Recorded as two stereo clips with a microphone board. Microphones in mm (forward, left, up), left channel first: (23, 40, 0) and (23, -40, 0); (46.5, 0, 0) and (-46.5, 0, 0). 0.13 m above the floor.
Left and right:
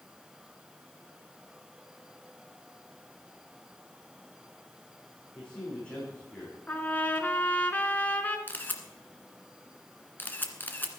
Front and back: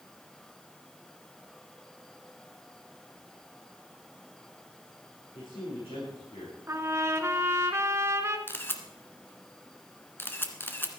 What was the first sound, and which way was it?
A man speaking, 15° left.